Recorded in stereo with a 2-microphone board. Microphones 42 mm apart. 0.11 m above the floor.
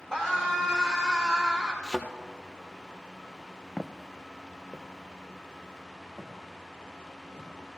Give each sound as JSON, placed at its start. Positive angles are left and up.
{"t": 0.1, "sound": "a scream", "side_deg": 15, "distance_m": 5.5}
{"t": 1.8, "sound": "a thud", "side_deg": 15, "distance_m": 1.2}
{"t": 3.8, "sound": "footsteps", "side_deg": -20, "distance_m": 0.5}